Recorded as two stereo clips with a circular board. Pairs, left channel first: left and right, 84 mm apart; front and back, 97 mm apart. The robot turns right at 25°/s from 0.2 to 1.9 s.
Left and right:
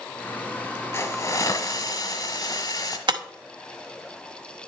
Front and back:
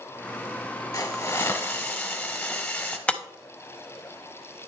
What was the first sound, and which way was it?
A hiss, 50° left.